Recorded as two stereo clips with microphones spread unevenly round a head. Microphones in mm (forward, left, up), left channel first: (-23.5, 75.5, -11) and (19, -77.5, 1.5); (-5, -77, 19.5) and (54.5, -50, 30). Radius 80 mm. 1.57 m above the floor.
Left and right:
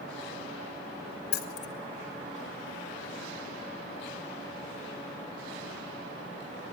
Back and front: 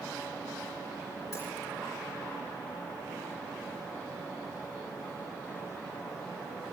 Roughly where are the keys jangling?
Behind left.